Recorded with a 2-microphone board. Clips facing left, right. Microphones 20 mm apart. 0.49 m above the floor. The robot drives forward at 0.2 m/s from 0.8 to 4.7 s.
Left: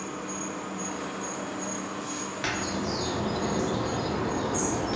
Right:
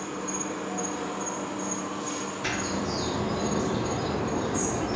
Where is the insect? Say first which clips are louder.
Right 2 dB; 60° right (ahead or behind), 1.2 m; by 5.0 s 65° right (ahead or behind), 1.2 m.